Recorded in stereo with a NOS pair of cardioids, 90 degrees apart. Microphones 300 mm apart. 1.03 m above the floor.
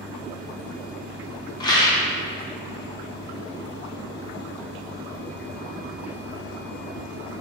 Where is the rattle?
15° left, 0.8 m.